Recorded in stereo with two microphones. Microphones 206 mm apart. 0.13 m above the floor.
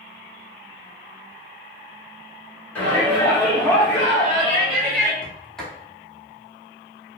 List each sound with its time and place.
2.8 s a shout: 5° left (ahead or behind), 1.9 m
5.2 s a sliding door: 5° left (ahead or behind), 1.2 m